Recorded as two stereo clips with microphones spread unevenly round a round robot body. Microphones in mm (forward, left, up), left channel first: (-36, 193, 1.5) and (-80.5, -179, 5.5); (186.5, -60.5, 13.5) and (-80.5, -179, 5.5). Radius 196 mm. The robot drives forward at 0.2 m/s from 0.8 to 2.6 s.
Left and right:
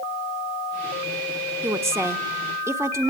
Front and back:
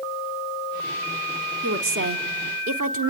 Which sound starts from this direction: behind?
A woman speaking, at 1.6 s.